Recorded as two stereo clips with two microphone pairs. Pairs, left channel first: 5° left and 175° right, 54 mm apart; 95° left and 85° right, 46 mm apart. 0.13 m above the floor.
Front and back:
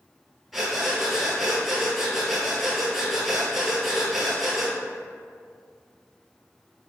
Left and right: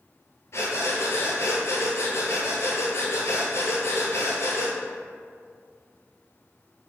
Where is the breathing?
100° left, 0.7 m.